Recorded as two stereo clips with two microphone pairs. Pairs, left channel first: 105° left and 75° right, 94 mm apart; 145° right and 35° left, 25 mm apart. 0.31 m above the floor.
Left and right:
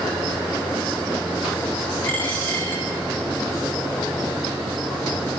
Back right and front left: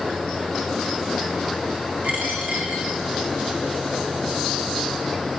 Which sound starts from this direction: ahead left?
A dropped coin, at 2.0 s.